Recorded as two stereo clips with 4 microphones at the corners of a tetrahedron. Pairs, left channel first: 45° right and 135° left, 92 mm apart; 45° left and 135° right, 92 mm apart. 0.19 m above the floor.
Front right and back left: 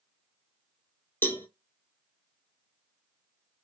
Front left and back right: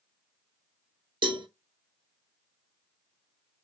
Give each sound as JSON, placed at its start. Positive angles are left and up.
{"t": 1.2, "sound": "a cowbell", "azimuth_deg": -110, "distance_m": 0.6}